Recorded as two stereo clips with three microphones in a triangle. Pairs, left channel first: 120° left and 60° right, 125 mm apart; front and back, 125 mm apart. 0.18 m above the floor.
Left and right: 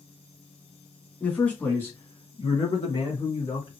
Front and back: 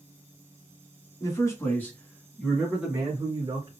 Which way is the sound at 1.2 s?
45° left.